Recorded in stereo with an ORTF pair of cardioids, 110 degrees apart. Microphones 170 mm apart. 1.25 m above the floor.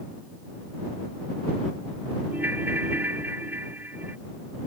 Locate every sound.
2.3 s a ringtone: 10° right